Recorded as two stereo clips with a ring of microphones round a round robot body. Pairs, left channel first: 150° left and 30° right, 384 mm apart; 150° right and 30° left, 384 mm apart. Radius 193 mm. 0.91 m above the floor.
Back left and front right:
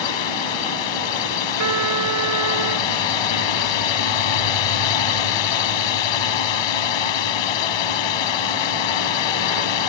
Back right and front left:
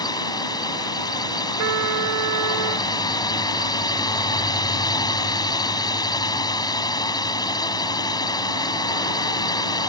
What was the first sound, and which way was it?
A drone, 130° left.